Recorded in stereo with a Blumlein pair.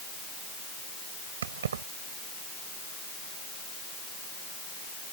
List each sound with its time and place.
1.4 s keys jangling: 60° right